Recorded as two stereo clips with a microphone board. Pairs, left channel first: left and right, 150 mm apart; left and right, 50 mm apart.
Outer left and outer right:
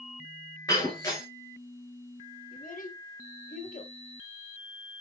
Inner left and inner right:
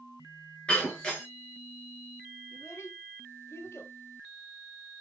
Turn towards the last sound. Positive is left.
turn(degrees=60)  # may be behind; listen again after turning